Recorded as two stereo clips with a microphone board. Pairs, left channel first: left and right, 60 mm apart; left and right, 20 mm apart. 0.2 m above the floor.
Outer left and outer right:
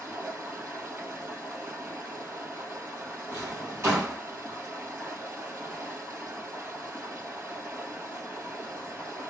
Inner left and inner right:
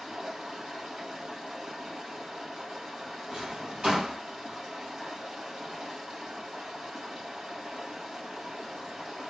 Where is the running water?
35° right (ahead or behind), 3.5 m.